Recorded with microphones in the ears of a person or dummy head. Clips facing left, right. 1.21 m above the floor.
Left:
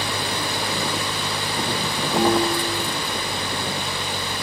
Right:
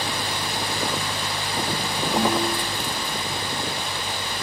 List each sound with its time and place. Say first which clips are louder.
2.1 s a piano: left 4 dB; 10° right (ahead or behind), 1.8 m